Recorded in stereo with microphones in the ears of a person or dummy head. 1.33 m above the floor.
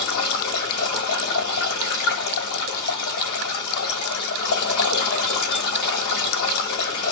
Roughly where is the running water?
Left.